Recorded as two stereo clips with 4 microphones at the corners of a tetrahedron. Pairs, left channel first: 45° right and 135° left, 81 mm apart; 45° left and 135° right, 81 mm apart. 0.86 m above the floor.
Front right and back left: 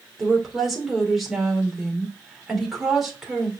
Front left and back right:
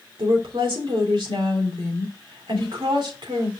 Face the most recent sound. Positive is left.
turn(degrees=-135)